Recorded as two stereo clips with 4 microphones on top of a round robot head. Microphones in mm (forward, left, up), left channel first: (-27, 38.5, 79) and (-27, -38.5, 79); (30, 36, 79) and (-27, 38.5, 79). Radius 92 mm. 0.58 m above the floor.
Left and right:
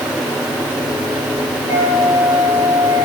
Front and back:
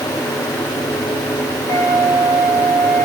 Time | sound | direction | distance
1.7 | a flute | 20° right | 7.5 m